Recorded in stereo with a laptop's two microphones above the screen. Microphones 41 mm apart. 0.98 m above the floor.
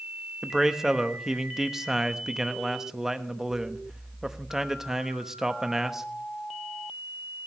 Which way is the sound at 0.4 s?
10° right (ahead or behind).